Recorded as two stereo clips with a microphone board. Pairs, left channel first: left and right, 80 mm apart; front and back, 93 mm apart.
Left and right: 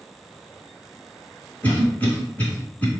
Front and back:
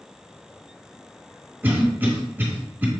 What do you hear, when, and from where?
1.6 s a cough: 135° left, 1.2 m